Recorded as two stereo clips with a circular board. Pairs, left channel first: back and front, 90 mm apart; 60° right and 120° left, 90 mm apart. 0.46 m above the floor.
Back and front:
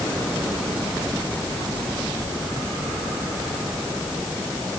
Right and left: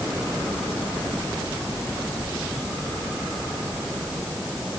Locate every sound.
Only background noise.